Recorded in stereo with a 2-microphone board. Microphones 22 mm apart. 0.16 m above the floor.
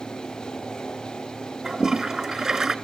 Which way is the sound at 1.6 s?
25° right (ahead or behind).